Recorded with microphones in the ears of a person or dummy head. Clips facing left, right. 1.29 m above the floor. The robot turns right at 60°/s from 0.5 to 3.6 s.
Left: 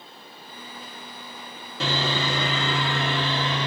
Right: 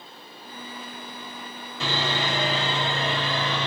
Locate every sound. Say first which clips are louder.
1.8 s sawing: left 1 dB; 60° left, 1.3 m; by 3.7 s 170° left, 1.3 m